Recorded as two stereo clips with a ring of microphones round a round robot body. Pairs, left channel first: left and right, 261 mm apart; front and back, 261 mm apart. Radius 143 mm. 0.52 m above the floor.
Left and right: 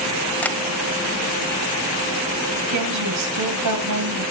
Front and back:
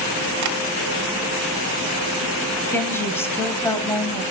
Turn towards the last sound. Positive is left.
turn(degrees=-80)